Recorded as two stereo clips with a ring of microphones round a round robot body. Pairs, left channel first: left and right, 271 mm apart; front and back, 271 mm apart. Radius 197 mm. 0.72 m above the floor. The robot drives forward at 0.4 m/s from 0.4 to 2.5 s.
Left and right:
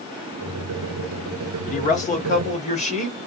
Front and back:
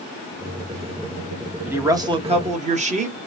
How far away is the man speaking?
About 1.0 m.